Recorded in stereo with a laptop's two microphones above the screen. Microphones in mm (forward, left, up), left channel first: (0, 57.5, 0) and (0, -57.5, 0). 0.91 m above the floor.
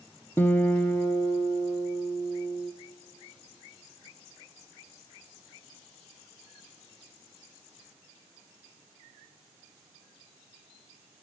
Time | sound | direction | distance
0.4 | a guitar | 20° left (ahead or behind) | 0.8 m